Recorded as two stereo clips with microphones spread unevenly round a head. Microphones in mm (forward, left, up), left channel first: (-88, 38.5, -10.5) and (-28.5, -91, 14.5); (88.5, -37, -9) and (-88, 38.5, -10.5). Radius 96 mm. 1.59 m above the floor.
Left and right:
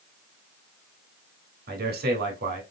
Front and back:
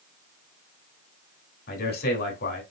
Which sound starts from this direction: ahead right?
A man speaking, at 1.7 s.